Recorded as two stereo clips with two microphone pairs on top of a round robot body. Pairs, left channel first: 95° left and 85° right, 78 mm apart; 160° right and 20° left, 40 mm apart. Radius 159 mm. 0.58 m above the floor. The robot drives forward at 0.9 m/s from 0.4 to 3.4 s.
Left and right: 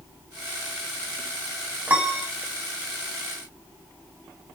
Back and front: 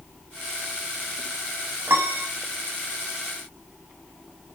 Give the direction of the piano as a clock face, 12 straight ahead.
12 o'clock.